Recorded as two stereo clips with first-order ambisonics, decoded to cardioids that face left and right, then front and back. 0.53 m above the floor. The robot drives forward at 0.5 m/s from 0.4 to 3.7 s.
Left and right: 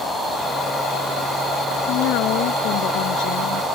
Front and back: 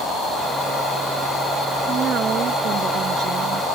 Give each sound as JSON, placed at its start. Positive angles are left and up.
{"t": 1.9, "sound": "a woman speaking", "azimuth_deg": 120}